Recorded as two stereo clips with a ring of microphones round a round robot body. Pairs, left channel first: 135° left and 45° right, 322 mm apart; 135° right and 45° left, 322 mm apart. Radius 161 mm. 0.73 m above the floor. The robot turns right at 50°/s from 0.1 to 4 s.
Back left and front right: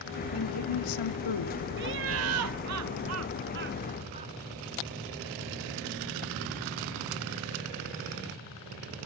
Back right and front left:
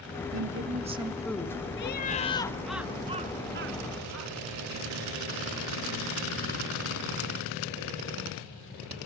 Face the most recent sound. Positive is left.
turn(degrees=20)